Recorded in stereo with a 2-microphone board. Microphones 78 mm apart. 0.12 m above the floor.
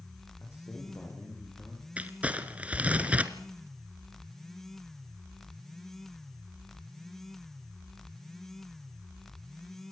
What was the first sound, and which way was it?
A man speaking, 35° left (ahead or behind).